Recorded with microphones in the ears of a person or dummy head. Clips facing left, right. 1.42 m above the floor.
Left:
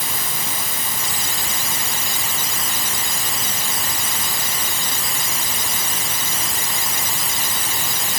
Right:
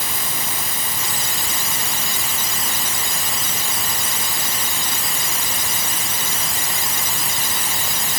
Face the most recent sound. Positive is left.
No sound to turn to.